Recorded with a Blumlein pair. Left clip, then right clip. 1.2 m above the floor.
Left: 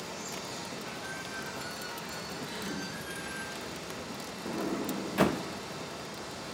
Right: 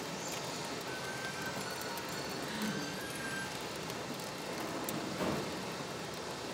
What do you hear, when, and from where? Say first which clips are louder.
0.0 s running water: left 1 dB; 5° left, 2.5 m
2.4 s a gasp: left 1 dB; 5° left, 2.5 m
4.5 s a sliding door: left 7 dB; 35° left, 0.6 m